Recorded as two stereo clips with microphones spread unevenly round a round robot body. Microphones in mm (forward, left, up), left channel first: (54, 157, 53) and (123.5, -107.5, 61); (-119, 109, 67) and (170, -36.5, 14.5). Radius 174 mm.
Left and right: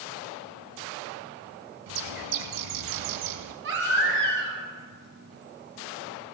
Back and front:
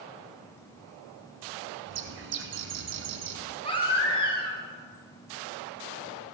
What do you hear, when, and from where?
1.9 s a bird: 85° right, 0.6 m
3.6 s a baby crying: 130° right, 1.6 m